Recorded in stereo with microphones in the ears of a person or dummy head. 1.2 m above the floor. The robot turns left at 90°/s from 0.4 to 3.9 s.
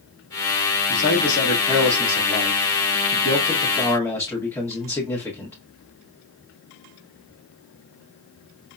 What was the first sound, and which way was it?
A man speaking, 80° left.